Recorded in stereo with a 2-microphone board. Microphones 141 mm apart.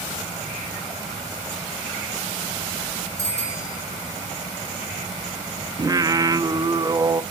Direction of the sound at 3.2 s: 60° right (ahead or behind).